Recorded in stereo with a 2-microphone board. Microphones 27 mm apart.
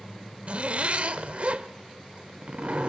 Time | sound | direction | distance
0.5 | a zipper | 50° right (ahead or behind) | 0.9 m